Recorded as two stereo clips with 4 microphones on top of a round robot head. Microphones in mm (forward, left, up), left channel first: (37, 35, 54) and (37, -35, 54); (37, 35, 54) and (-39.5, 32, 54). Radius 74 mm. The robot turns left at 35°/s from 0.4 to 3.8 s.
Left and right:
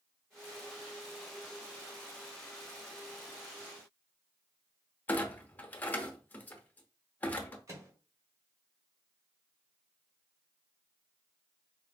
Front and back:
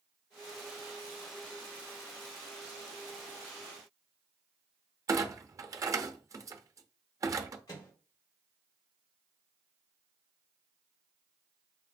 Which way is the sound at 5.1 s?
150° left.